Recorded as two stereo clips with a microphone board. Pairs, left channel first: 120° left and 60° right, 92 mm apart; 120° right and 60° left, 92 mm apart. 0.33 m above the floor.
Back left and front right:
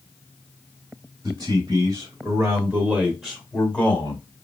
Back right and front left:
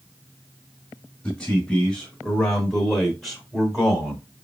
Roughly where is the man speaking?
Ahead right.